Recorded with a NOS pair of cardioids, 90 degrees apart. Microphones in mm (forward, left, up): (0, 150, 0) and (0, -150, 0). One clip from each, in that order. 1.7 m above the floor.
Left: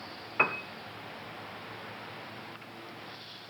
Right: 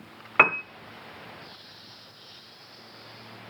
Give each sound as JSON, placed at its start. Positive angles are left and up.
{"t": 0.4, "sound": "a piano", "azimuth_deg": -55, "distance_m": 0.5}